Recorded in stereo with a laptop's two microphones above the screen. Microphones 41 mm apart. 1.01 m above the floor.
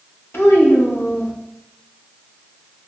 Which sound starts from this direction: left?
A child speaking, at 0.3 s.